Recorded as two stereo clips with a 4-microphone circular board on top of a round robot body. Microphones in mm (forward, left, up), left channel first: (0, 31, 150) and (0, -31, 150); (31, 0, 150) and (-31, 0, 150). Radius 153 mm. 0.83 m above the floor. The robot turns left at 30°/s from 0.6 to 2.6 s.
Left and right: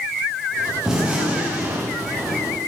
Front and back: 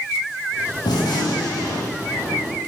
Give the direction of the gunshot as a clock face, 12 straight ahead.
12 o'clock.